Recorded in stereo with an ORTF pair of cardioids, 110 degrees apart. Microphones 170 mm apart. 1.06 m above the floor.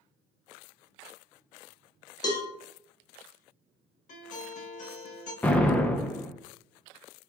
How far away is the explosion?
About 0.6 m.